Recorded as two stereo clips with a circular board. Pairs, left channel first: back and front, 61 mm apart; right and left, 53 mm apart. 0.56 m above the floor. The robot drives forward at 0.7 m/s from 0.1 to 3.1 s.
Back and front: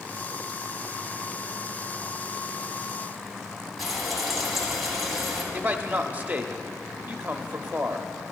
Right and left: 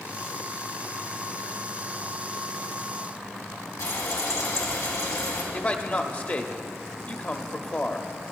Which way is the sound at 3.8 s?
85° right.